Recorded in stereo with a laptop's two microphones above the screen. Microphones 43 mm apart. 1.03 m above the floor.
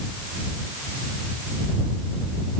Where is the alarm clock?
No alarm clock in this recording.